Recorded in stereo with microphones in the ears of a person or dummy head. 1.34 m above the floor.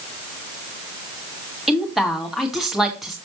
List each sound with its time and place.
1.7 s a woman speaking: centre (ahead or behind), 2 m